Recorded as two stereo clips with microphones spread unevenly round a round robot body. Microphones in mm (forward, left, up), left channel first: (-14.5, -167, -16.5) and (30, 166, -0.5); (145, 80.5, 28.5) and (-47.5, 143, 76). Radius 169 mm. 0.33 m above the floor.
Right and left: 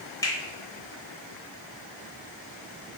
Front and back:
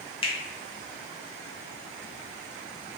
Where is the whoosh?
I don't hear a whoosh.